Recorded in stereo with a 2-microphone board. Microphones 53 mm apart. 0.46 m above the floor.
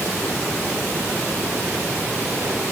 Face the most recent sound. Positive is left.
No sound to turn to.